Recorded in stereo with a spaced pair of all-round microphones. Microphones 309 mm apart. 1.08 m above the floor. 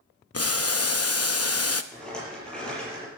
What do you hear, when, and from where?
0.3 s boiling: 50° left (ahead or behind), 0.7 m
1.9 s a rattle: 5° left (ahead or behind), 6 m